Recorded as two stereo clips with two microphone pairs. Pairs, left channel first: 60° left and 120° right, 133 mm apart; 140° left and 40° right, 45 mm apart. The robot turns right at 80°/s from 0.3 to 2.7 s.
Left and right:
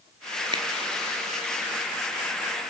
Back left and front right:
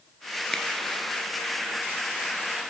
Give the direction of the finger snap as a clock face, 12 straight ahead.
5 o'clock.